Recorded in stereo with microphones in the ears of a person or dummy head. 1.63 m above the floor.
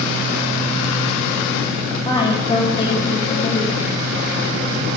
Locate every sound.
2.0 s a woman speaking: 25° left (ahead or behind), 1.9 m